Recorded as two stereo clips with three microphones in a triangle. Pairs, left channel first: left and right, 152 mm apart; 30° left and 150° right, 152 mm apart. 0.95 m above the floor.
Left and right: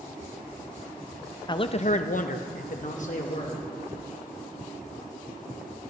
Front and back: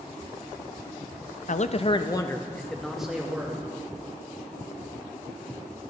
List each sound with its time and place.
1.5 s a man speaking: 40° left, 0.5 m; by 3.6 s 130° left, 1.2 m